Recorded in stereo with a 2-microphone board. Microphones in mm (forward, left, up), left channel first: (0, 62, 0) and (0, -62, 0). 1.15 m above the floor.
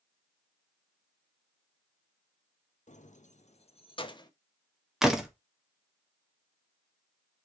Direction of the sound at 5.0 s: 5° right (ahead or behind).